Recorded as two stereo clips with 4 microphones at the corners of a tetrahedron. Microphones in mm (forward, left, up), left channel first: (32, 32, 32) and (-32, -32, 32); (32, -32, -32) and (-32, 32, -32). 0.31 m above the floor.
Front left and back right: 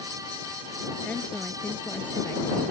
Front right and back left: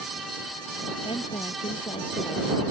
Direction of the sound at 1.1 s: 30° right.